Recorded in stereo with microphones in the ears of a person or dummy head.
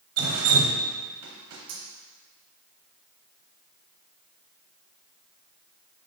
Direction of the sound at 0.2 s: 80° right.